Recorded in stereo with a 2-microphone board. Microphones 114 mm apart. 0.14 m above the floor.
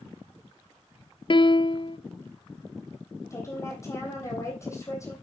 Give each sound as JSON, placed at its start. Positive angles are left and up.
{"t": 1.3, "sound": "a piano", "side_deg": 45, "distance_m": 0.5}
{"t": 3.3, "sound": "a woman speaking", "side_deg": 25, "distance_m": 3.5}